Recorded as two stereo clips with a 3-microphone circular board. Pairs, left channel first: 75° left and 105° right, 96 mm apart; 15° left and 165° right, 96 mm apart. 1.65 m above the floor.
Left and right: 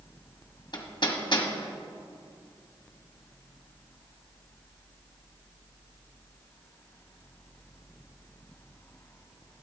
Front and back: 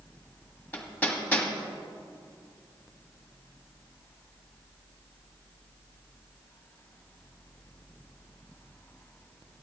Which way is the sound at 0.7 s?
85° left.